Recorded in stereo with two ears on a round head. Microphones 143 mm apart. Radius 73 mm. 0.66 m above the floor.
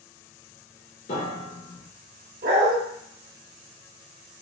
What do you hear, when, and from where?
1.1 s a piano: 45° left (ahead or behind), 2.0 m
2.4 s a dog barking: 60° right (ahead or behind), 0.9 m